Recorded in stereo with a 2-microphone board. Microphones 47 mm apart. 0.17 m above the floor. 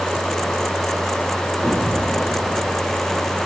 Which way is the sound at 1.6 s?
35° left (ahead or behind).